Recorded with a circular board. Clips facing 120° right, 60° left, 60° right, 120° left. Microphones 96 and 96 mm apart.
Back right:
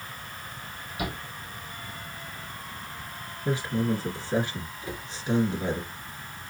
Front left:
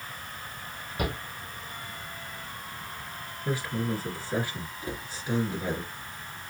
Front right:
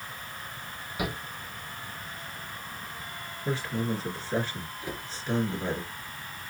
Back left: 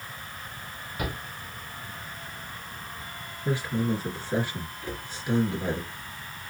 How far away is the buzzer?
No buzzer in this recording.